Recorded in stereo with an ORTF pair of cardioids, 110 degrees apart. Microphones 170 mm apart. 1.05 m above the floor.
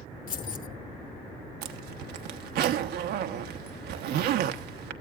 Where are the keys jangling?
50° left, 1.2 m.